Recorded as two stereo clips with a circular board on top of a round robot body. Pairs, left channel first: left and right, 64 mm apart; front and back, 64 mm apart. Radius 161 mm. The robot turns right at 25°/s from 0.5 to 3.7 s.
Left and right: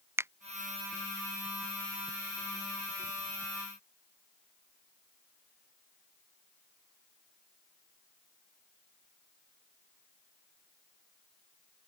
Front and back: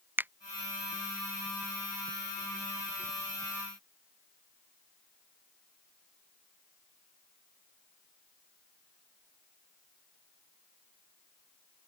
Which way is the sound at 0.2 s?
125° right.